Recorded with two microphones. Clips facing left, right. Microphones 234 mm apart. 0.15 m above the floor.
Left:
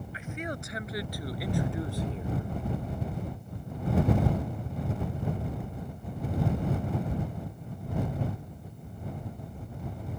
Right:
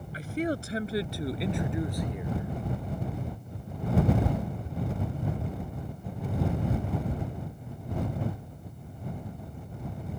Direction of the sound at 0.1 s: 40° right (ahead or behind).